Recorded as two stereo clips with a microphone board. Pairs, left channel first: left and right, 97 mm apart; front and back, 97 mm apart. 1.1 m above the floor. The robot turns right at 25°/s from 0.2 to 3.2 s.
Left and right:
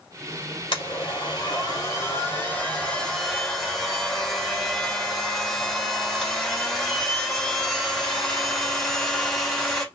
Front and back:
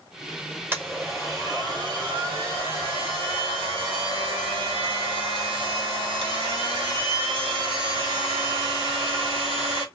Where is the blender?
115° left, 2 m; by 9.8 s 175° left, 2 m.